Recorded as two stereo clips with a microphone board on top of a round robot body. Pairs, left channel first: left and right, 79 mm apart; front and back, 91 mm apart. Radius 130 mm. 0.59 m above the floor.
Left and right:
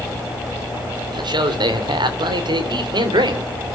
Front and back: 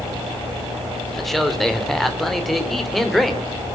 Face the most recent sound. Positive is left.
turn(degrees=-85)